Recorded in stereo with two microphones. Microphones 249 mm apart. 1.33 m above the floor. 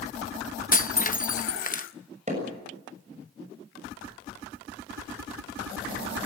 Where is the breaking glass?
30° left (ahead or behind), 0.7 m.